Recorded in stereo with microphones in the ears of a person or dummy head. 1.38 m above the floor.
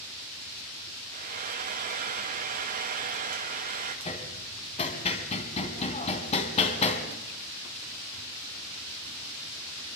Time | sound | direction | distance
1.1 | frying | 45° right (ahead or behind) | 2.5 m
4.0 | hammering | 30° left (ahead or behind) | 3 m